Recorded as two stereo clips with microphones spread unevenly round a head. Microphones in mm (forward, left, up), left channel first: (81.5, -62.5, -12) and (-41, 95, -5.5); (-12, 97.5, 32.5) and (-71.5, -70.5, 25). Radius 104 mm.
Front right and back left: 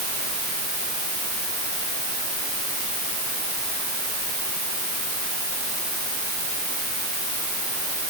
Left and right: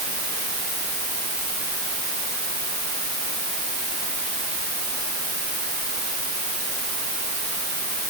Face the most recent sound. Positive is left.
No sound to turn to.